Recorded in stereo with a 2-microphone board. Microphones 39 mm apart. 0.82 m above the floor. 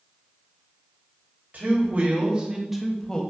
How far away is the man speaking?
About 1.1 m.